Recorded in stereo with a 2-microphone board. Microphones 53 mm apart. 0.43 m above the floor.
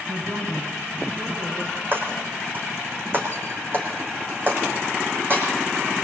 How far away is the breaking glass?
About 6 m.